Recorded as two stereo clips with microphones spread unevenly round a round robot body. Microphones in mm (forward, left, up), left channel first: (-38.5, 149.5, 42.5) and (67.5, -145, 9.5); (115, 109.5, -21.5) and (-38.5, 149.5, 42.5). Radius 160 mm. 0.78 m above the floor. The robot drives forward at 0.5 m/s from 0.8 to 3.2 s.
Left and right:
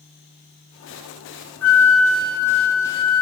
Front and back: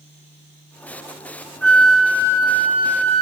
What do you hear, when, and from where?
1.6 s a flute: 20° left, 1.0 m; by 3.2 s 145° left, 0.9 m